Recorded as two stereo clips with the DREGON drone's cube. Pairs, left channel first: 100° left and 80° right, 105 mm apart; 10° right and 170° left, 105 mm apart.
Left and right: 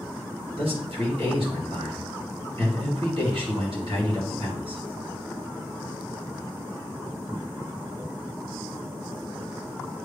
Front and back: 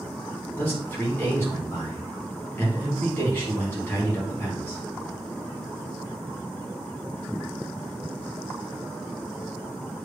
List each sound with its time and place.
0.6 s a man speaking: 80° right, 3 m